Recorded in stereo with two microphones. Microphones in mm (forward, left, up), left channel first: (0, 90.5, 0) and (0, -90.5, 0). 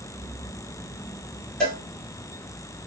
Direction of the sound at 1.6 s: 5° left (ahead or behind).